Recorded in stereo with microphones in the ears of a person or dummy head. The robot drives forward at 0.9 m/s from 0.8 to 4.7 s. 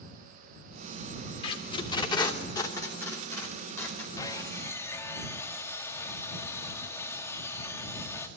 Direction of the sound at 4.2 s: 20° left (ahead or behind).